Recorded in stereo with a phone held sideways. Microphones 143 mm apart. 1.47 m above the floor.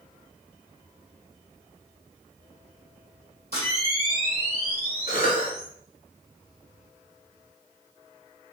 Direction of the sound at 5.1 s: 65° left (ahead or behind).